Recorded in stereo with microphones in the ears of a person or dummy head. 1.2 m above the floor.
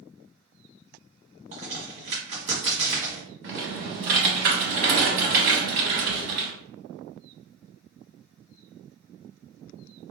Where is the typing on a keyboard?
50° right (ahead or behind), 0.8 m.